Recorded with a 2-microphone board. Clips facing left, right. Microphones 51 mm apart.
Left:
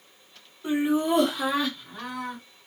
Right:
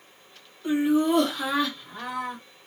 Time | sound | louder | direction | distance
0.6 | laughter | right 2 dB | 25° left (ahead or behind) | 1.4 m